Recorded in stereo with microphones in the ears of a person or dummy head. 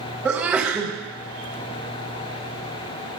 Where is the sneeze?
10° right (ahead or behind), 0.9 m.